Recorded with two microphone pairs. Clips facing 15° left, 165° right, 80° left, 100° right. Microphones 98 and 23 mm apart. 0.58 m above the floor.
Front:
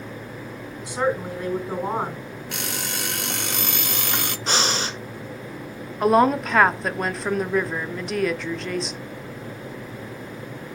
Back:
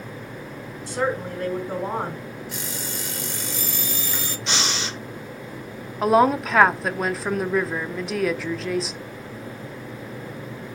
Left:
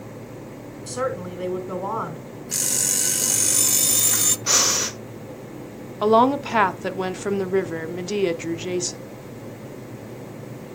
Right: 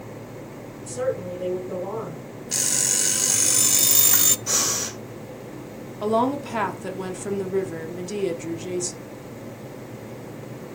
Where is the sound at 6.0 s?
110° left, 0.8 m.